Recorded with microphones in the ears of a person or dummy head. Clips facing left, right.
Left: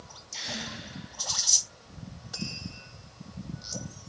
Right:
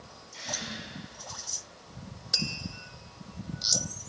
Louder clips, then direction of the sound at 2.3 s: Right 1 dB; 40° right (ahead or behind).